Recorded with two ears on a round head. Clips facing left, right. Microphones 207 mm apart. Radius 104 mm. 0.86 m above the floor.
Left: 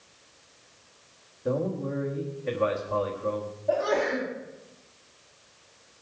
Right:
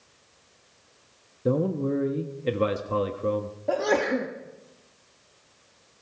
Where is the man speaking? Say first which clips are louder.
Right 4 dB; 45° right (ahead or behind), 1.1 m.